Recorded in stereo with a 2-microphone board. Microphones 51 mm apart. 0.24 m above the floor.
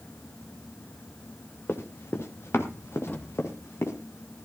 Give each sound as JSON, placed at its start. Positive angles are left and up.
{"t": 1.7, "sound": "running footsteps", "side_deg": 50, "distance_m": 2.5}
{"t": 3.1, "sound": "a drawer", "side_deg": 40, "distance_m": 2.5}